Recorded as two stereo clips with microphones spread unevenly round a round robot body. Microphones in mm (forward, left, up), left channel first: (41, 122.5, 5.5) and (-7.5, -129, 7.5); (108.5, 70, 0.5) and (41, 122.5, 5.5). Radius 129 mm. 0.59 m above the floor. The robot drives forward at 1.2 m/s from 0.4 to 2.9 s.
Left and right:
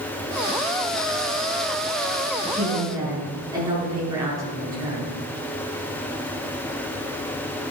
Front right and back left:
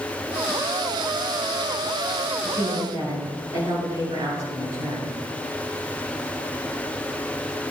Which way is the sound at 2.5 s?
Straight behind.